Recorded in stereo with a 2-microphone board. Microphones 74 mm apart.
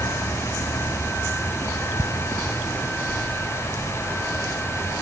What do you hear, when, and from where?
2.0 s ticking: 70° left (ahead or behind)